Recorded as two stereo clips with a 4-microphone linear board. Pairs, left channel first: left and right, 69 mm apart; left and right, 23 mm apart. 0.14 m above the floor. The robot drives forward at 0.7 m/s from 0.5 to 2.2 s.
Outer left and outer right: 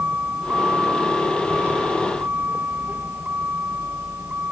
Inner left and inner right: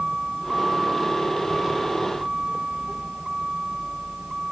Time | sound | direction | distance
0.0 | a vehicle | 25° right (ahead or behind) | ?